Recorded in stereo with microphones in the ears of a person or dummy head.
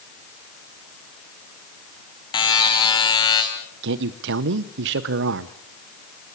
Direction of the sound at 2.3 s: 25° left (ahead or behind).